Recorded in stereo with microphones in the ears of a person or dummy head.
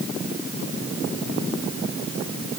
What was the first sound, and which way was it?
Only background noise.